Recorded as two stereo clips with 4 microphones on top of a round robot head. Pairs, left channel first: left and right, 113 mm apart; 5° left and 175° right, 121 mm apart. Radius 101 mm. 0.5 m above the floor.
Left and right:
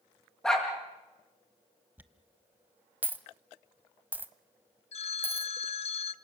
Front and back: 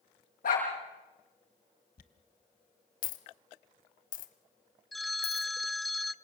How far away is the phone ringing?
About 0.7 m.